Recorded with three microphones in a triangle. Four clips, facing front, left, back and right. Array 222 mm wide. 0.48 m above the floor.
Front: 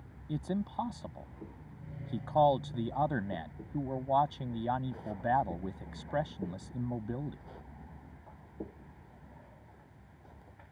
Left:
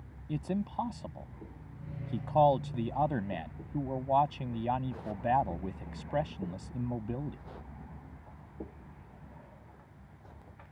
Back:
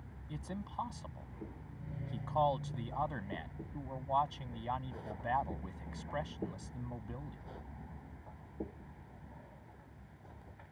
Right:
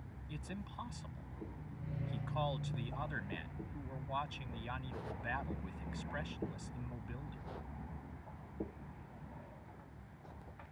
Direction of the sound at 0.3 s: 50° left.